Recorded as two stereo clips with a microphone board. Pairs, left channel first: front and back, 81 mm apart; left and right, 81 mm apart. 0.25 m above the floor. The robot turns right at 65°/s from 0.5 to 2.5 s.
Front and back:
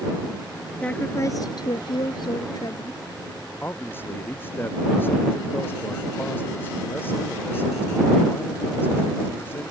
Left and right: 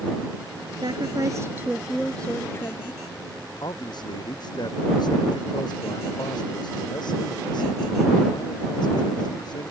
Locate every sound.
0.8 s a woman speaking: 75° right; by 3.0 s 35° left
3.6 s a man speaking: 65° left